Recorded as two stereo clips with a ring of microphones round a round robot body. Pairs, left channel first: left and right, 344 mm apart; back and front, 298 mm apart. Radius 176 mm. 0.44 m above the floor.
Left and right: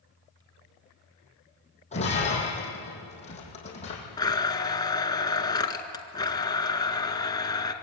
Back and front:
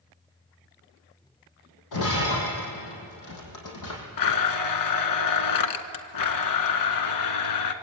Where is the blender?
170° left, 1.6 m.